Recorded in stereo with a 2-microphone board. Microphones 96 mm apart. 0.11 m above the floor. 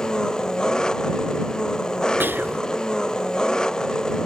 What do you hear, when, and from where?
0.0 s an engine running: 5° left (ahead or behind)
2.2 s whispering: 20° right (ahead or behind)